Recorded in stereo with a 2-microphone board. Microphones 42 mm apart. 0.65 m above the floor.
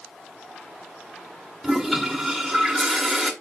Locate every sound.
1.6 s a toilet flushing: centre (ahead or behind), 1.6 m